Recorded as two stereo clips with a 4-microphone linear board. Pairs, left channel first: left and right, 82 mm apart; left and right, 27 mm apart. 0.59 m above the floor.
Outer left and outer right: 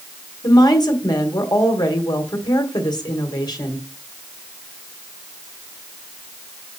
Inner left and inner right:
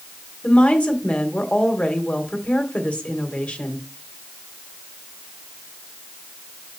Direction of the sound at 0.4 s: 55° left (ahead or behind).